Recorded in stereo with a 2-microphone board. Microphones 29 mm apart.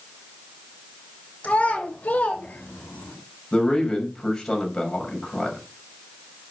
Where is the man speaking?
25° left (ahead or behind), 5 m.